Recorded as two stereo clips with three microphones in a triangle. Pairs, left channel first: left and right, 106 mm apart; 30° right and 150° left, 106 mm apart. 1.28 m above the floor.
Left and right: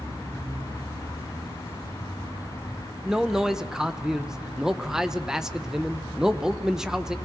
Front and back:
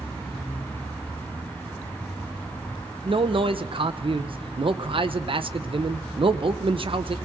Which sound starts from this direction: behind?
A man speaking, at 3.0 s.